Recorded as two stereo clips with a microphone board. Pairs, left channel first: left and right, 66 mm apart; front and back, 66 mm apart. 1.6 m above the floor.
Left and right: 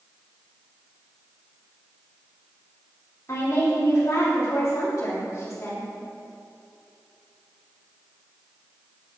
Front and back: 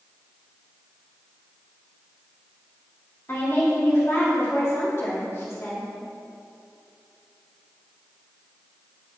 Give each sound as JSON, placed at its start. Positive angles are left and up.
{"t": 3.3, "sound": "a woman speaking", "azimuth_deg": 45, "distance_m": 3.0}